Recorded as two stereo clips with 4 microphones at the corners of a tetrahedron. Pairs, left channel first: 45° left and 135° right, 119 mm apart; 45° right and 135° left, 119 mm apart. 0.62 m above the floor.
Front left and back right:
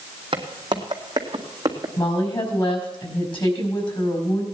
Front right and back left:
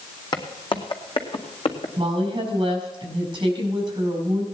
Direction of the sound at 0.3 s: 95° right.